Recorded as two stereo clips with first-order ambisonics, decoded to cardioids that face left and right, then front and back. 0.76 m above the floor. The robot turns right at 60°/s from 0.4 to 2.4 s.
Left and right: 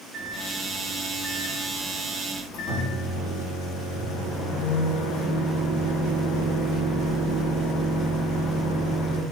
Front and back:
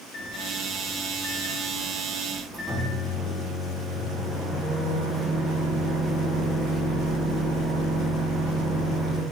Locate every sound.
0.1 s a microwave: 15° right, 0.9 m; by 9.2 s 105° left, 0.9 m